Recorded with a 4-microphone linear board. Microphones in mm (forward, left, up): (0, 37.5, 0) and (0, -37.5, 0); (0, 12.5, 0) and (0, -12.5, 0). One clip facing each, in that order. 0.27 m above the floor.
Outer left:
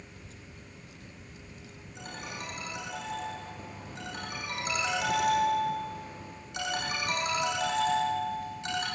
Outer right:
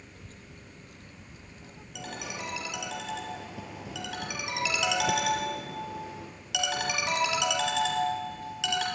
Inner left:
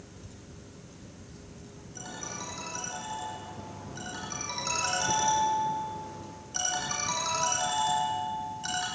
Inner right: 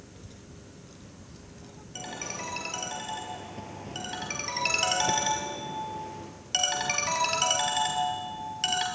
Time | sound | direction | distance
0.1 | a child speaking | 45° right (ahead or behind) | 3 m
1.9 | a ringtone | 80° right | 4.5 m